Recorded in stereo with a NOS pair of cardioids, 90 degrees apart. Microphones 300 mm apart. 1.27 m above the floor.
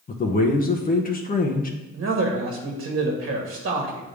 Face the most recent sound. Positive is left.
turn(degrees=-45)